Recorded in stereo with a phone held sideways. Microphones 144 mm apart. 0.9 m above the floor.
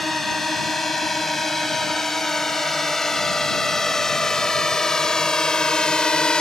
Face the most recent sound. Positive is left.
turn(degrees=5)  # may be behind; listen again after turning